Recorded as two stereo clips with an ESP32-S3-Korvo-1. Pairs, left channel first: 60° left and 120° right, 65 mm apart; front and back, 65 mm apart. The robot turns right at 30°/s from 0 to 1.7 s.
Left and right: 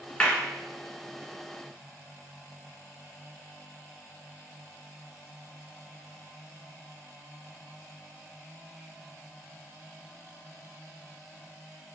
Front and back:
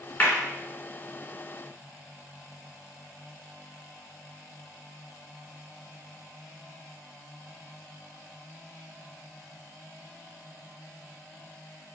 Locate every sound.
0.2 s a clap: 5° left, 0.9 m; by 0.4 s 10° left, 0.9 m